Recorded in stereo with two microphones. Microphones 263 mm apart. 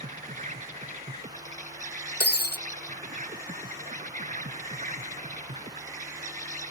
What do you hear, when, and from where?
0.0 s an insect: 30° right (ahead or behind)
2.2 s breaking glass: 40° left (ahead or behind)